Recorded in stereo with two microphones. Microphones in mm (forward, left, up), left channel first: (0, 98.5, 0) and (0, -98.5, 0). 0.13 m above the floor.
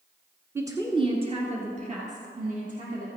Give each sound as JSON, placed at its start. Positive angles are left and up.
{"t": 0.6, "sound": "a woman speaking", "side_deg": -15, "distance_m": 1.2}